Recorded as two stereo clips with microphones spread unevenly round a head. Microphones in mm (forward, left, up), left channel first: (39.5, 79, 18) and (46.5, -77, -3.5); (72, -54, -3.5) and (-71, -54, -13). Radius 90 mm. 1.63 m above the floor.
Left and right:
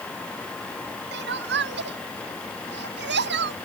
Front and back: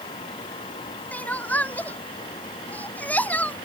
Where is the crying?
80° right.